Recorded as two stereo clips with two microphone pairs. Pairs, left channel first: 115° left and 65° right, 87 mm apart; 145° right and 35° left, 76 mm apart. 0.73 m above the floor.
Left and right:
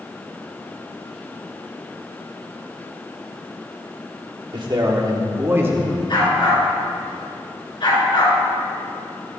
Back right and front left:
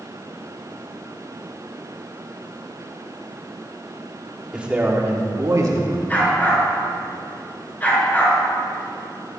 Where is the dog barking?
150° left, 4.5 m.